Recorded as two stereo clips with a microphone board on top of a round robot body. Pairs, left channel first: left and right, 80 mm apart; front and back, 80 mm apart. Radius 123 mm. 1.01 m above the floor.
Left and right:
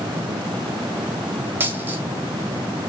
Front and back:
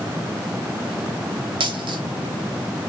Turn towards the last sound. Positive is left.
turn(degrees=-155)